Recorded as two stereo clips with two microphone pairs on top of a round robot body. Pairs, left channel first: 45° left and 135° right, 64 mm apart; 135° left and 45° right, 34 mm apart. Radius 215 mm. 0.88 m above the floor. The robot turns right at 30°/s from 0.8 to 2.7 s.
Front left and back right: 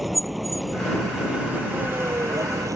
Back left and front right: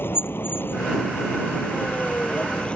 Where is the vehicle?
135° left; by 2.8 s 165° right.